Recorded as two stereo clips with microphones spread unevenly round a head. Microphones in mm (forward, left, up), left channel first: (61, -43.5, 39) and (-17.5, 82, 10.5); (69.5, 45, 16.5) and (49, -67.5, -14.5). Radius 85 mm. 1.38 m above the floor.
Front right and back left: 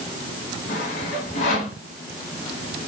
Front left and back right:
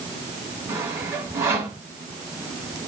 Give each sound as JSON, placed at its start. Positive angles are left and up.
{"t": 0.7, "sound": "sawing", "azimuth_deg": -30, "distance_m": 3.0}